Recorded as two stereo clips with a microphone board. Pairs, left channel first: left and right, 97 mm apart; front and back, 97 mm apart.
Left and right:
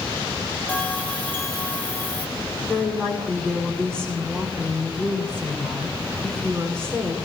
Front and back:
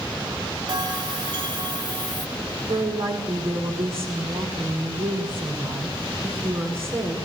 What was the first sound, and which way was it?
A bell, 160° left.